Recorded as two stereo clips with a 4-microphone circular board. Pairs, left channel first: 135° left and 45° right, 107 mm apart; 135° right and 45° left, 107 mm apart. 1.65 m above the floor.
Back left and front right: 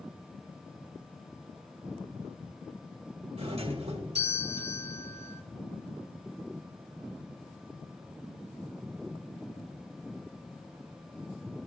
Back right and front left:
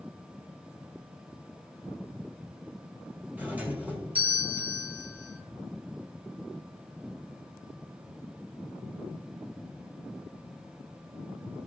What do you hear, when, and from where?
3.4 s a doorbell: 30° right, 2 m